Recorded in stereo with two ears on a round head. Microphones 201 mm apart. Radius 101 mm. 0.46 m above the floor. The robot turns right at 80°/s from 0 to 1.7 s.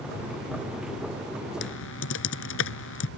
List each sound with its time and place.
1.6 s typing on a keyboard: 55° left (ahead or behind); by 3.1 s 60° left (ahead or behind)